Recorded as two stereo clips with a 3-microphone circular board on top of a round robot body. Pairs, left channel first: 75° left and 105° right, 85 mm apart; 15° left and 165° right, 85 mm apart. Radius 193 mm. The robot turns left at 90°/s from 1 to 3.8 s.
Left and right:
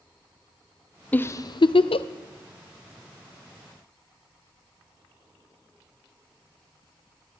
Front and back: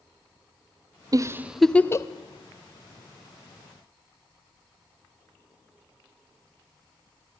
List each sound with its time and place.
1.1 s a giggle: 150° left, 0.7 m; by 2.1 s 65° left, 0.7 m